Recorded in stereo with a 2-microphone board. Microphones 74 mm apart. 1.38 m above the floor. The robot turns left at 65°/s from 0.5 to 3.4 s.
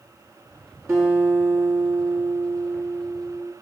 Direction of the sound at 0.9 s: 35° right.